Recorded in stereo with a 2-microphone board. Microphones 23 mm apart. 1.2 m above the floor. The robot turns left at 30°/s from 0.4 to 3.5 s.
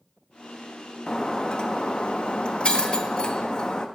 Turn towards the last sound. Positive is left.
turn(degrees=60)